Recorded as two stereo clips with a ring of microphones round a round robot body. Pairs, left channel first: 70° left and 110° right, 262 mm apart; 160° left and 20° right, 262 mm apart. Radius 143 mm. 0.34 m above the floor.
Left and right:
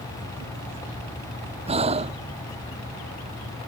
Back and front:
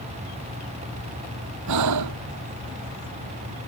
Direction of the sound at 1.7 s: 45° right.